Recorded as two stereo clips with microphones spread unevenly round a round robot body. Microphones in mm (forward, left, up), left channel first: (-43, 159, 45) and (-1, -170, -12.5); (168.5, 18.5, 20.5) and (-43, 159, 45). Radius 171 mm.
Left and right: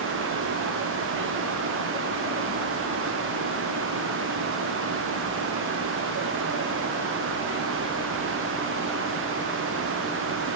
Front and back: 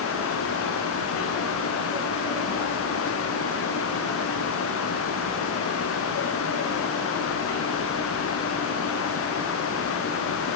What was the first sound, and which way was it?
Only background noise.